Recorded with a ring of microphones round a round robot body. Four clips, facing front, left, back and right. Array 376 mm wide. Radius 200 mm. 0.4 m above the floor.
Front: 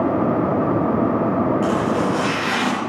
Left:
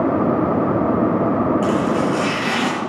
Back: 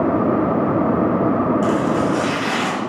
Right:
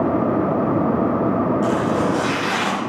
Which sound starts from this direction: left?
Chopping, at 1.6 s.